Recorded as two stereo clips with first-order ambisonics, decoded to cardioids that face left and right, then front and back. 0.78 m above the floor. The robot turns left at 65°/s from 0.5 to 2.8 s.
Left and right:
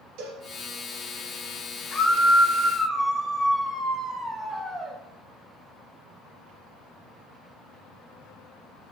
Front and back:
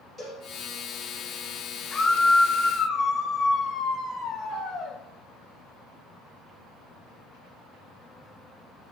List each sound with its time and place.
0.2 s a cowbell: 85° right, 3 m
1.9 s a scream: 55° left, 0.5 m; by 5.0 s straight ahead, 0.5 m